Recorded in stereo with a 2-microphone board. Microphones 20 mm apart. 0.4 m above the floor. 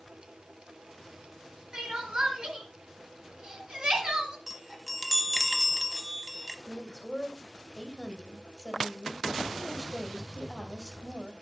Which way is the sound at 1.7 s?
60° right (ahead or behind).